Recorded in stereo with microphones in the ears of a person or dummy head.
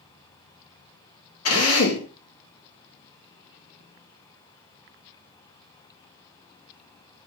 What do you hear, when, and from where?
1.4 s a drill: 85° left, 3.5 m